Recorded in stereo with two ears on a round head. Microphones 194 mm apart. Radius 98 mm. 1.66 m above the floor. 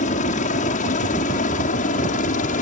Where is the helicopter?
35° left (ahead or behind).